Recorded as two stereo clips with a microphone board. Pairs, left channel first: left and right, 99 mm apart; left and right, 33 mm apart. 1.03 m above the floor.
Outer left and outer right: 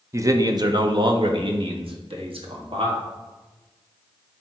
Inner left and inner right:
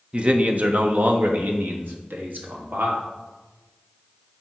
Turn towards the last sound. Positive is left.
turn(degrees=-70)  # may be behind; listen again after turning